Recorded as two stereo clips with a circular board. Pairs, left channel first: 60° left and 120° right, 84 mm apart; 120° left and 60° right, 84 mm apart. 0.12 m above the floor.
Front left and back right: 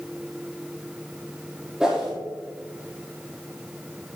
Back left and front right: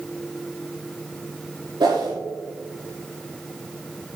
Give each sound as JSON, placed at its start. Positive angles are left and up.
{"t": 1.8, "sound": "a whoosh", "azimuth_deg": -40, "distance_m": 4.0}